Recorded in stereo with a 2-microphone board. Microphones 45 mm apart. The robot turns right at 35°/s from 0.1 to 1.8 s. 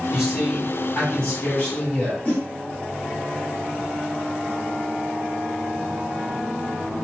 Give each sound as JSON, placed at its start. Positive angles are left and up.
{"t": 0.1, "sound": "a man speaking", "azimuth_deg": -15, "distance_m": 1.9}
{"t": 2.2, "sound": "a whoosh", "side_deg": 35, "distance_m": 1.0}